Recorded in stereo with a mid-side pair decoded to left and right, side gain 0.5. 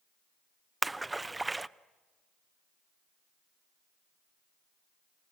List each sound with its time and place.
0.8 s a splash: 15° right, 0.6 m